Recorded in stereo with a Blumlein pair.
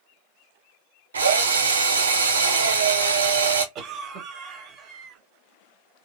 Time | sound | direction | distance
1.1 | a drill | 70° right | 0.9 m
3.8 | a cough | 30° right | 1.5 m